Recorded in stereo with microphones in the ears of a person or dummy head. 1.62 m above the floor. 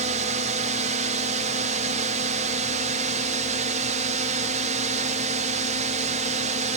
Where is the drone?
45° right (ahead or behind).